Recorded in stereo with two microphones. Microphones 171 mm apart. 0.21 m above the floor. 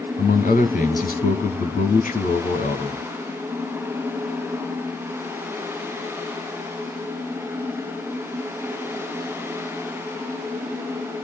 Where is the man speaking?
50° left (ahead or behind), 1.5 m.